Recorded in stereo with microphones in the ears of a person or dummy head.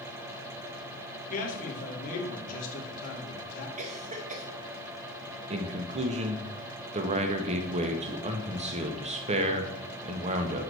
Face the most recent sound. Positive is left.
turn(degrees=-30)  # may be behind; listen again after turning